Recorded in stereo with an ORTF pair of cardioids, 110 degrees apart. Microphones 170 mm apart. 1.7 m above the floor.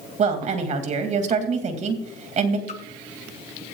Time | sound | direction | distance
0.2 | a woman speaking | 45° right | 2.5 m
2.7 | a splash | 45° left | 1.7 m